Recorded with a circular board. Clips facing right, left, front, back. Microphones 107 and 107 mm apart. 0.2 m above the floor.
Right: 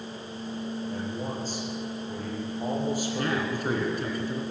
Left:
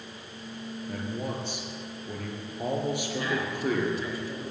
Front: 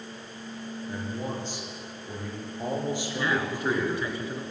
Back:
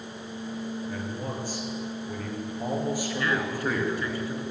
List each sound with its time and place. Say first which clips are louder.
0.9 s a man speaking: right 1 dB, even; 70° left, 4 m
3.1 s a man speaking: right 2 dB, even; 65° right, 2.5 m